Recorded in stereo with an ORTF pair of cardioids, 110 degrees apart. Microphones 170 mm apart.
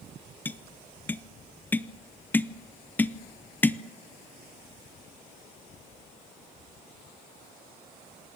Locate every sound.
0.5 s tapping: 10° left, 0.7 m